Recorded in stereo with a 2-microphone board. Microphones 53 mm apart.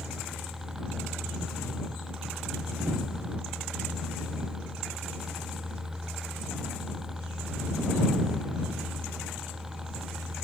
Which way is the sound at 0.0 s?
5° right (ahead or behind).